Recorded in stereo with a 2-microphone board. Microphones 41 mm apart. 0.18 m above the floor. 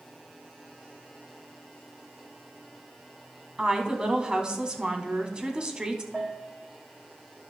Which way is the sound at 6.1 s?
15° right (ahead or behind).